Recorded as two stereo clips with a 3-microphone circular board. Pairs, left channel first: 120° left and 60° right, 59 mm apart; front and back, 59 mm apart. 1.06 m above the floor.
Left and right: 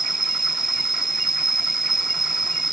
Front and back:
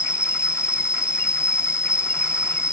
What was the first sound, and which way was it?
An insect, 25° left.